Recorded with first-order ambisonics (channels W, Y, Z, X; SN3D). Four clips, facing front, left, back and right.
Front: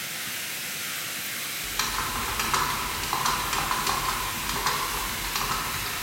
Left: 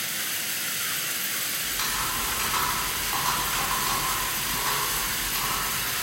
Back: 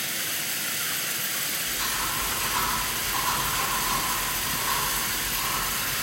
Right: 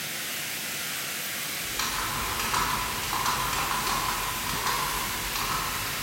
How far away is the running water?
About 0.9 m.